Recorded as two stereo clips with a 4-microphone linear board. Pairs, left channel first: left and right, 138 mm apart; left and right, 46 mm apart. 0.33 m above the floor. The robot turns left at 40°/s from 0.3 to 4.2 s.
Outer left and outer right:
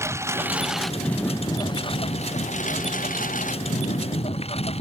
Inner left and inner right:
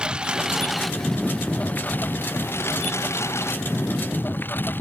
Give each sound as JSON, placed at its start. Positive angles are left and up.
{"t": 0.0, "sound": "a lawn mower", "side_deg": -20}